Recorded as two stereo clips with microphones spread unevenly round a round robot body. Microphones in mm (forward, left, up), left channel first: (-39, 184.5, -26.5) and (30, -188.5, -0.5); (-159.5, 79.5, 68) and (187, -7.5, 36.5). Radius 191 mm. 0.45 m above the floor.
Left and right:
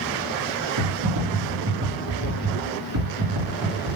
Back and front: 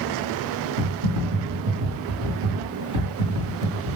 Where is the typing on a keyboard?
35° right, 3.5 m.